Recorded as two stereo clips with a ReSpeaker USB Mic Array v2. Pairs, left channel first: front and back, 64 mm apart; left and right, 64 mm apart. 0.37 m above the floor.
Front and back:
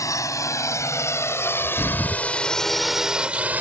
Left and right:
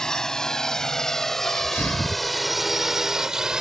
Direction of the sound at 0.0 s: 10° left.